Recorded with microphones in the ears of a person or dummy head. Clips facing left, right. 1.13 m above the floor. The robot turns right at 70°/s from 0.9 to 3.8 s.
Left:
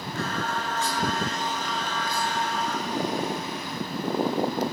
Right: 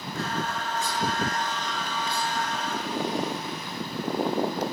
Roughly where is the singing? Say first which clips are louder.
Left 1 dB; behind left.